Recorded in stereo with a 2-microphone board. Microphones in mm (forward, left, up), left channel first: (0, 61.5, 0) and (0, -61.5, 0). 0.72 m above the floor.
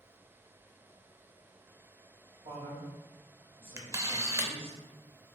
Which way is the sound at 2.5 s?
45° right (ahead or behind).